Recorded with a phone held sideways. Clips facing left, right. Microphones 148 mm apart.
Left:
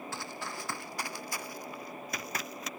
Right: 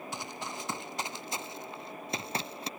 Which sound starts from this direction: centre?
Running footsteps, at 0.1 s.